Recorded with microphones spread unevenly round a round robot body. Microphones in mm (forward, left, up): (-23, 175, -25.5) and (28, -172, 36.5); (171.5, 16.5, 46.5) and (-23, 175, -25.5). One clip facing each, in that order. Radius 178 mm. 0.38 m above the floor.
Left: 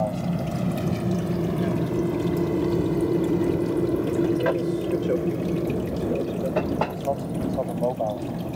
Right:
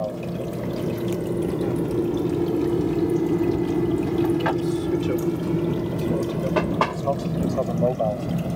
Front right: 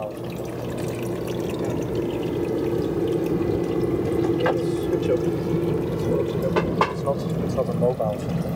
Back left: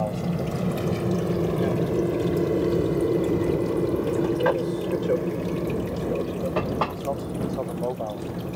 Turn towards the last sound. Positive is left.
turn(degrees=-45)